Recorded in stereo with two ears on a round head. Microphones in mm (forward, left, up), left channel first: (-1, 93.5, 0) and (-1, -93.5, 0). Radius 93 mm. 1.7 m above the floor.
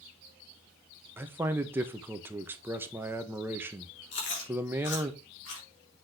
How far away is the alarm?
No alarm in this recording.